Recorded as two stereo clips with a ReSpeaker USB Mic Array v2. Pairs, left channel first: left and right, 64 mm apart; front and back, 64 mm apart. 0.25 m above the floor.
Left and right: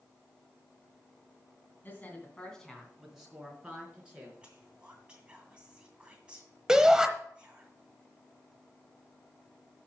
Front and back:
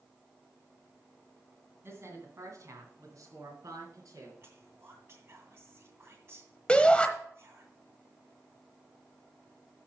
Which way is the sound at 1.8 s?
140° left.